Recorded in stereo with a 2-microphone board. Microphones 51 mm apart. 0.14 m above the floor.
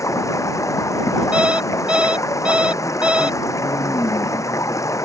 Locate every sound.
0.0 s running water: 80° left
1.3 s an alarm clock: 20° right (ahead or behind)